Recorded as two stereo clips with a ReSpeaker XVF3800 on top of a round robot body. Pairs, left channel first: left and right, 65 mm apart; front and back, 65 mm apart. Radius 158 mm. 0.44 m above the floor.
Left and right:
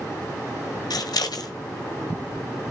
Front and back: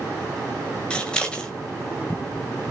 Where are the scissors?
75° left, 1.4 m.